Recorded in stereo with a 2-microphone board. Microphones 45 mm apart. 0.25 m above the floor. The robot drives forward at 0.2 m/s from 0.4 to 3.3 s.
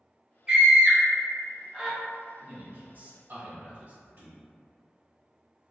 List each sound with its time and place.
0.5 s a scream: 20° right (ahead or behind), 0.9 m
2.4 s a man speaking: 50° right (ahead or behind), 1.4 m